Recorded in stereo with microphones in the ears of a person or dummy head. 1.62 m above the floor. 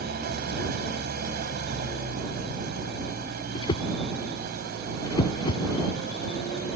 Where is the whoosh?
30° left (ahead or behind).